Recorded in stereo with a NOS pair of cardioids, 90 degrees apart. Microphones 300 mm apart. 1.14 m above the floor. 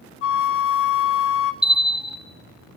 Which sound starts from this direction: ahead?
A bell, at 1.6 s.